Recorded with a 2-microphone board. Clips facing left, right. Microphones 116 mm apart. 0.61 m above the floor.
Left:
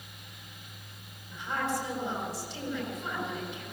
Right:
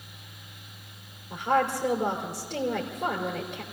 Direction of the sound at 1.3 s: 70° right (ahead or behind).